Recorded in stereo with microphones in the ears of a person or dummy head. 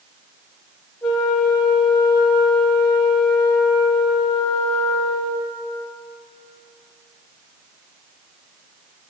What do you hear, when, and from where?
1.0 s a flute: 20° left (ahead or behind), 1.2 m